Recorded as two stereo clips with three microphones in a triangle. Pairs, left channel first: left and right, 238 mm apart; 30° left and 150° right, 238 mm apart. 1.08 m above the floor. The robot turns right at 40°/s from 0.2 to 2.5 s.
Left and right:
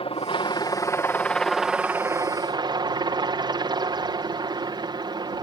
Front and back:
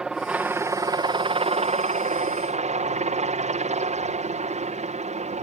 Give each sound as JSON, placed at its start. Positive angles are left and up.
{"t": 0.0, "sound": "a helicopter", "azimuth_deg": 125}